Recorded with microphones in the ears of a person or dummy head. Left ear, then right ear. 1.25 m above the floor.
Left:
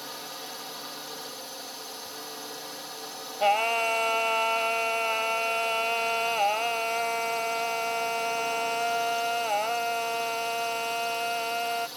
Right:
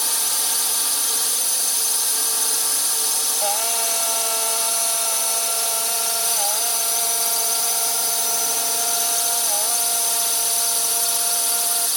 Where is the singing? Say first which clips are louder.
Left 5 dB; 35° left (ahead or behind).